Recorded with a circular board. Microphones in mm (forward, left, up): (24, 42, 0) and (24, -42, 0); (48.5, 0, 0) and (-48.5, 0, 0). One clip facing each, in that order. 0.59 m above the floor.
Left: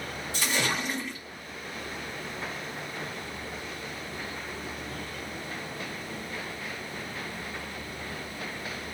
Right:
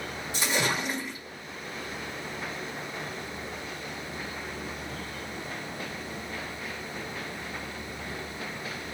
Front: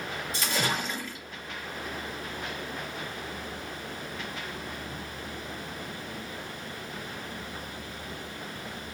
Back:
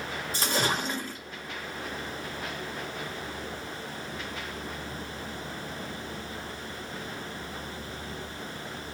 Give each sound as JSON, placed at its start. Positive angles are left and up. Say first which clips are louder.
{"t": 0.3, "sound": "a splash", "louder": "right 1 dB, back 2 dB", "azimuth_deg": -150, "distance_m": 1.0}